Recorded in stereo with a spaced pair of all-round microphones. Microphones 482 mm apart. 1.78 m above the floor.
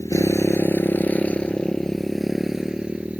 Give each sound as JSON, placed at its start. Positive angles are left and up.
{"t": 0.0, "sound": "a motorcycle", "side_deg": 5}